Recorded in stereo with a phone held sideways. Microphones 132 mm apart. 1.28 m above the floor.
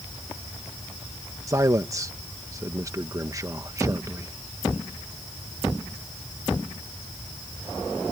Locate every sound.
1.5 s a man speaking: 25° right (ahead or behind)